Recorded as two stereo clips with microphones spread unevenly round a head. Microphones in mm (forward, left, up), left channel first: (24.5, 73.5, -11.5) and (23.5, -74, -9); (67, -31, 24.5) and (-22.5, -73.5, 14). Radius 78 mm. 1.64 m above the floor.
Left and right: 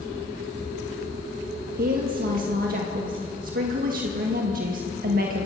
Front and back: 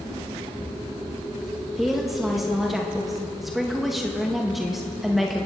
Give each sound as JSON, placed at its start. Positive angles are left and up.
{"t": 1.8, "sound": "a woman speaking", "azimuth_deg": -65, "distance_m": 1.9}